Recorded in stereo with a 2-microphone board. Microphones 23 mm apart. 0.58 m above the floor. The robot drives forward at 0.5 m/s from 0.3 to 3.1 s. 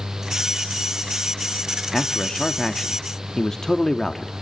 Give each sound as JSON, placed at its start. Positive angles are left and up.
{"t": 1.9, "sound": "a man speaking", "side_deg": 20, "distance_m": 1.3}